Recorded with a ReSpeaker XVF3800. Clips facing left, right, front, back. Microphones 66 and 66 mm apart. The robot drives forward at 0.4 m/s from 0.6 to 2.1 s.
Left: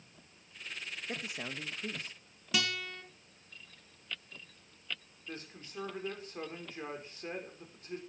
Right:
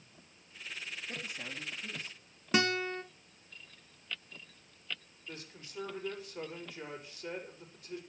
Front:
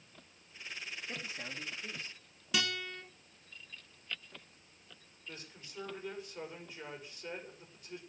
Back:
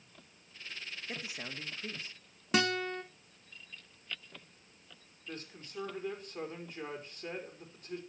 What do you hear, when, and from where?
1.1 s a man speaking: 105° left, 2 m; by 2.1 s 115° left, 2.5 m
2.5 s a guitar: 140° right, 1.3 m
5.3 s a woman speaking: 140° left, 5.5 m